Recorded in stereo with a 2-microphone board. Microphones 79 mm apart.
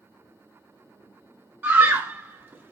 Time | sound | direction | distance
1.6 | a scream | 30° right (ahead or behind) | 0.9 m